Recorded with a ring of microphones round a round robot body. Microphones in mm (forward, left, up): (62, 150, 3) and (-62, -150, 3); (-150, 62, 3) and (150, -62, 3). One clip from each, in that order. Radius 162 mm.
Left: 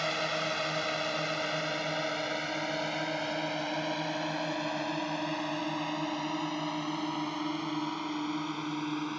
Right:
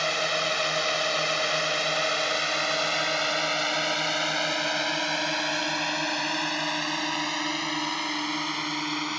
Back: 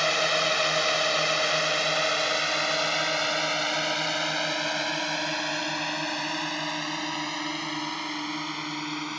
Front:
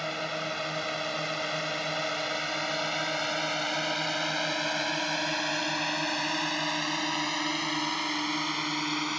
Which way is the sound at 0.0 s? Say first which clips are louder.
Right 6 dB, back 9 dB; 165° right.